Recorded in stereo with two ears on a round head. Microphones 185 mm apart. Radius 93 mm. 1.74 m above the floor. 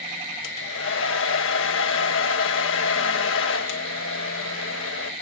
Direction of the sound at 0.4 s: 70° left (ahead or behind).